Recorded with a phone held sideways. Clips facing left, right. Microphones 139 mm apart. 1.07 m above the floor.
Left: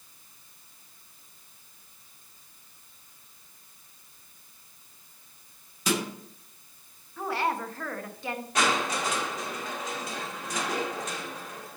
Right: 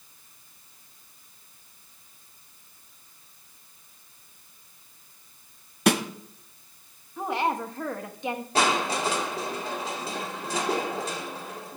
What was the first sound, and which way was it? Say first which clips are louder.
A snare drum: right 6 dB; 65° right (ahead or behind).